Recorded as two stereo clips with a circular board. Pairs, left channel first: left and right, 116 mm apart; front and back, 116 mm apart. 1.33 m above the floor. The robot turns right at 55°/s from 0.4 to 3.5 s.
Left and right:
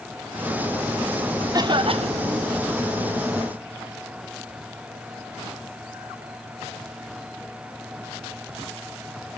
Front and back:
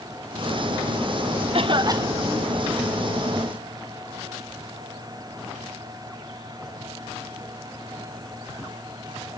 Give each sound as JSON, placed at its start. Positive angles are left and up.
{"t": 1.5, "sound": "a cough", "azimuth_deg": -145, "distance_m": 1.0}